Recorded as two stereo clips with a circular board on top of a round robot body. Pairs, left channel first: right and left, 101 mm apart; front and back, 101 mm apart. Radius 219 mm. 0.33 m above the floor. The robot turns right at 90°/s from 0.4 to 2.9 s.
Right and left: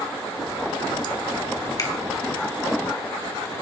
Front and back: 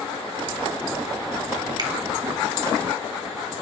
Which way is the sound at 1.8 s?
140° right.